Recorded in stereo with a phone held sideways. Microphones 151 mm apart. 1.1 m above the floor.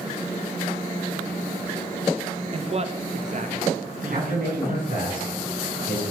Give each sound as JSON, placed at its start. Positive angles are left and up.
{"t": 2.5, "sound": "a man speaking", "side_deg": -35, "distance_m": 0.9}
{"t": 4.1, "sound": "a man speaking", "side_deg": -70, "distance_m": 5.5}